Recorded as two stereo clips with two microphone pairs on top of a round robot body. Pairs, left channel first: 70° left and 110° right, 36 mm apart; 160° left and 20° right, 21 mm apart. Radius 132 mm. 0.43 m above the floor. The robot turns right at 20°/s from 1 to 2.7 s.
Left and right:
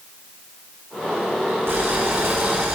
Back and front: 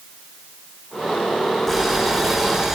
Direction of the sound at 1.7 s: 120° right.